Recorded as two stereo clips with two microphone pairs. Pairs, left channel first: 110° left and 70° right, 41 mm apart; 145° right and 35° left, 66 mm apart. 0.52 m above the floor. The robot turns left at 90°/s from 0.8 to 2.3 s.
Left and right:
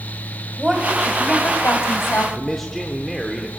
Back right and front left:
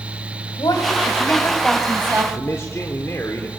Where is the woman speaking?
150° right, 3.5 m; by 2.2 s 80° left, 3.5 m.